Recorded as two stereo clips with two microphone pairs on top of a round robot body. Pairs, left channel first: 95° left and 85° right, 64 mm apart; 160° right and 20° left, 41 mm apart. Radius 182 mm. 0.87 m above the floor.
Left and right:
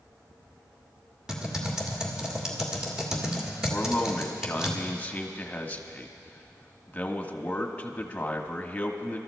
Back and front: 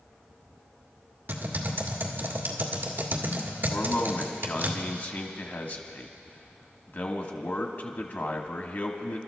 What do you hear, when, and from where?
1.3 s typing on a keyboard: 15° right, 1.7 m
3.7 s a man speaking: 165° left, 1.6 m